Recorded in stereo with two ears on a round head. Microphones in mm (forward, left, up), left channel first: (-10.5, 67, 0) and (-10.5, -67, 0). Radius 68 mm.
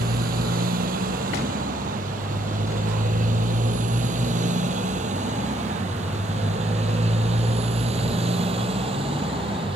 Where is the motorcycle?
70° right (ahead or behind); by 9.8 s 40° right (ahead or behind).